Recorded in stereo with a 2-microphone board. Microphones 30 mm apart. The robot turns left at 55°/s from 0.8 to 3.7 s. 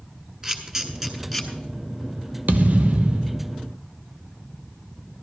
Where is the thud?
105° right, 0.8 m; by 3.5 s 160° right, 0.8 m.